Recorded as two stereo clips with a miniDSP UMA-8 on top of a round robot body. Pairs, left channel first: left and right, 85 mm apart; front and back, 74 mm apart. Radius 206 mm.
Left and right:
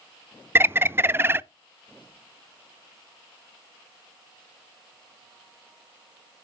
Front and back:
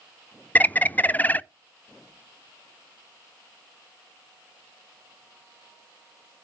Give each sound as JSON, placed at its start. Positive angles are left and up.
{"t": 0.6, "sound": "a bird", "azimuth_deg": -50, "distance_m": 0.7}